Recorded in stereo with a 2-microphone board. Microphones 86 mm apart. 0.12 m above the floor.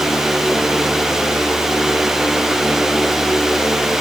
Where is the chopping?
I don't hear chopping.